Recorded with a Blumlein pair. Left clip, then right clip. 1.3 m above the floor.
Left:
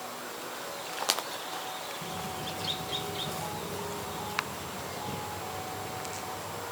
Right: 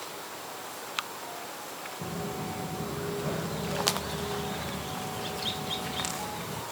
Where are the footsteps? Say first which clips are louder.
Even; 25° right, 4.5 m; by 6.6 s 40° right, 8 m.